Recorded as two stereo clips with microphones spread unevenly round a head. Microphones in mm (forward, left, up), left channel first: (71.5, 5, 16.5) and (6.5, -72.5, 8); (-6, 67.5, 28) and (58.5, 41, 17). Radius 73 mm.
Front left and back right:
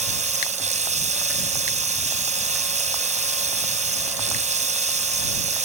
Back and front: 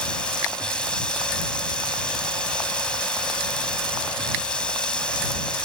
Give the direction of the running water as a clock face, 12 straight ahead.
4 o'clock.